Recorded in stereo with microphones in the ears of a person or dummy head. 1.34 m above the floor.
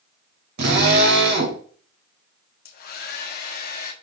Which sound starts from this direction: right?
A drill, at 0.6 s.